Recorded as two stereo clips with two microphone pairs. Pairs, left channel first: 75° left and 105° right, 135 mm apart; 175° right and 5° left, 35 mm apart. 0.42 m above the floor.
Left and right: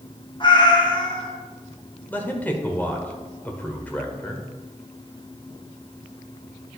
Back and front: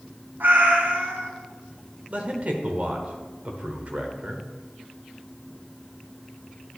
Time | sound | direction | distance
0.4 | a cat meowing | 25° left | 1.5 m
2.1 | a man speaking | 5° left | 1.1 m